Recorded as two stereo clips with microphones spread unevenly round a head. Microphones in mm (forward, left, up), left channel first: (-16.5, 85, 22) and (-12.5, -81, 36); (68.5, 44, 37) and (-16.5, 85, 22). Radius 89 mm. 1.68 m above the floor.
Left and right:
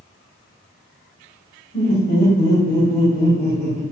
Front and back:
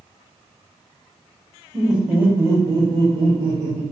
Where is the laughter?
60° left, 0.9 m; by 3.8 s straight behind, 0.9 m.